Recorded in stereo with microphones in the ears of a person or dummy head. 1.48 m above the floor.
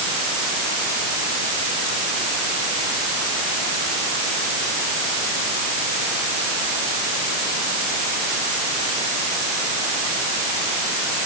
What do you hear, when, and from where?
Only background noise.